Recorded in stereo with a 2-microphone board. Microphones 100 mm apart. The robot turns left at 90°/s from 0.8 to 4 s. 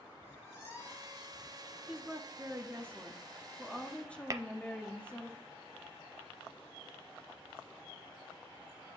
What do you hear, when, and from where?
0.2 s a squeak: 25° left, 3 m; by 1.8 s 60° right, 3 m
1.9 s a woman speaking: 10° right (ahead or behind), 0.8 m; by 5.3 s 10° left (ahead or behind), 0.8 m
4.3 s tapping: 35° right (ahead or behind), 0.5 m